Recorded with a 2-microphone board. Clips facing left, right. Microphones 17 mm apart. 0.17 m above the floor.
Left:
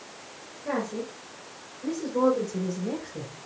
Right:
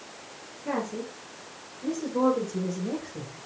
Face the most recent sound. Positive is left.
turn(degrees=15)  # may be behind; listen again after turning